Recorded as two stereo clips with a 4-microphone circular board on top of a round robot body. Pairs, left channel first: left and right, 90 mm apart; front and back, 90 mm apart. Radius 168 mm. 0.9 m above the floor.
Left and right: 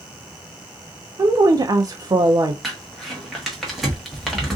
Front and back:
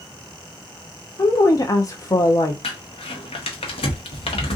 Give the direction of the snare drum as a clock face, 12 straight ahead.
No snare drum in this recording.